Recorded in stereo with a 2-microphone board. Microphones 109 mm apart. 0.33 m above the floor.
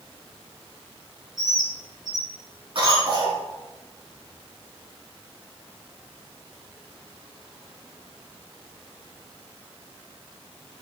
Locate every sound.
1.4 s a bird: 5° right (ahead or behind), 2.5 m
2.8 s a cough: 60° right (ahead or behind), 3 m